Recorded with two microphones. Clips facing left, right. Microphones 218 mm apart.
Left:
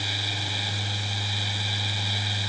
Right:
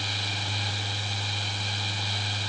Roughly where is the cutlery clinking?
No cutlery clinking in this recording.